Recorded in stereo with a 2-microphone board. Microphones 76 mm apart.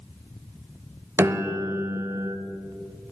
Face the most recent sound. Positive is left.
turn(degrees=-35)  # may be behind; listen again after turning